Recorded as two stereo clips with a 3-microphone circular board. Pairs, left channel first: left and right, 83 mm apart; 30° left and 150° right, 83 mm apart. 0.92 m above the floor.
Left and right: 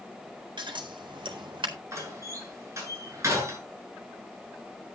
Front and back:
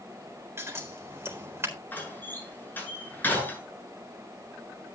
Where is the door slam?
35° right, 7.5 m.